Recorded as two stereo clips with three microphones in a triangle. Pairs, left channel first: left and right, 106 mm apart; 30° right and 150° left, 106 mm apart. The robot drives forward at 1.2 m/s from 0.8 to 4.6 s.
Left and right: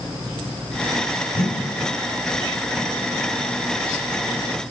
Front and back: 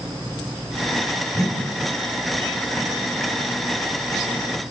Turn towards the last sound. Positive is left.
turn(degrees=105)